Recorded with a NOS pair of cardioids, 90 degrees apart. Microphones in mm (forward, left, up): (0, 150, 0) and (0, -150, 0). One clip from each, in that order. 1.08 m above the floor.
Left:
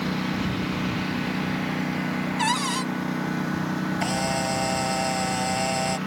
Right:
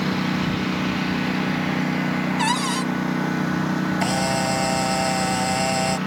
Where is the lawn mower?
30° right.